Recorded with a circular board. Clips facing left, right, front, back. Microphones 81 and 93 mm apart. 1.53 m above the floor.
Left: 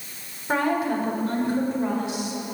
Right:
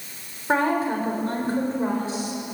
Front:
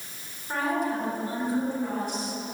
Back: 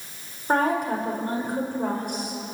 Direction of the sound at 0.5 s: 150° right.